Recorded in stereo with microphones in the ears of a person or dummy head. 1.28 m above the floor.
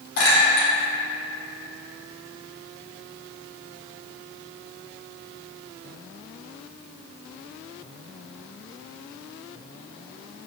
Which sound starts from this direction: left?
A clink, at 0.2 s.